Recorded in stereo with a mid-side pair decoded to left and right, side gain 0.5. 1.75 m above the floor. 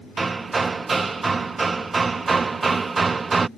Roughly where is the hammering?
Ahead right.